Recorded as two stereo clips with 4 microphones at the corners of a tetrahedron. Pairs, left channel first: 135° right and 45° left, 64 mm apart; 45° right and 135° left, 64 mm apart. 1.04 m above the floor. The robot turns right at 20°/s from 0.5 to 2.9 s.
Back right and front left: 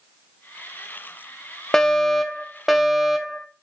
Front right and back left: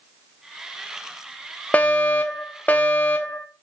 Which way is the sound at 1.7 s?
60° right.